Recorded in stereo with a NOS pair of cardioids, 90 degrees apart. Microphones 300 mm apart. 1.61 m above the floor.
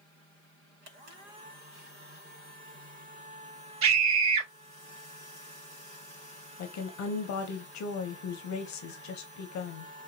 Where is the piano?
I don't hear a piano.